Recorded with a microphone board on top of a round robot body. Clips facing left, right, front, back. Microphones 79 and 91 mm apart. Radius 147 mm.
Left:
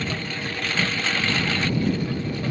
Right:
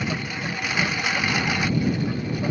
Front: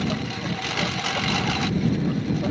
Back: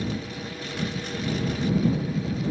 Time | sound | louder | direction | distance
0.0 | a lawn mower | right 1 dB, front 4 dB | 15° right | ?